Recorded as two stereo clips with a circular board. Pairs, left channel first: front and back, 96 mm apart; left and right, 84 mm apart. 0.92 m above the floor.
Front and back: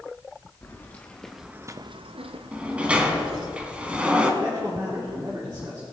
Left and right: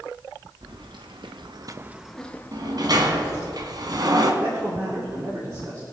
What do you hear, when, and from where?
0.6 s keys jangling: 70° right, 1.5 m; by 3.5 s 140° left, 2 m
2.5 s a sliding door: 105° right, 1.3 m
4.4 s a man speaking: 130° right, 2.5 m